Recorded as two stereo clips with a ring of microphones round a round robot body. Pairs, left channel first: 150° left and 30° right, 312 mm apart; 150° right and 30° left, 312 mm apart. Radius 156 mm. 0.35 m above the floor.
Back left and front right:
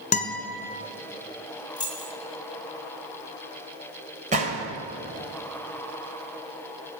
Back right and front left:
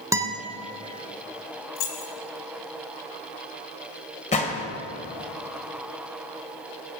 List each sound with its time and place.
0.1 s a guitar: 100° left, 1.7 m
1.8 s keys jangling: 135° right, 3.5 m
4.3 s a gunshot: 90° right, 2 m